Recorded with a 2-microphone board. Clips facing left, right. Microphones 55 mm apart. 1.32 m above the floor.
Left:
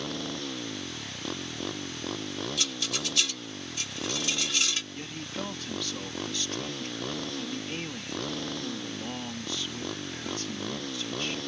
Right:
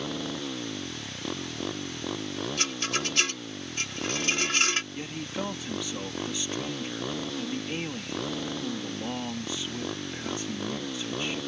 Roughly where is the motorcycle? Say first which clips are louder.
Right 2 dB; centre.